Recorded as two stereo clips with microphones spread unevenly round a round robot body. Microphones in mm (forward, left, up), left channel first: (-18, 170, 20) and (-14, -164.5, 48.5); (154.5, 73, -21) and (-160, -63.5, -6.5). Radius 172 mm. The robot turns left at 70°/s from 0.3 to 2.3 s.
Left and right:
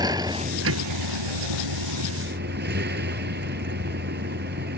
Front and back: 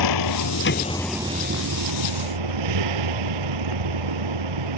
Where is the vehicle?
10° right; by 4.8 s 150° right.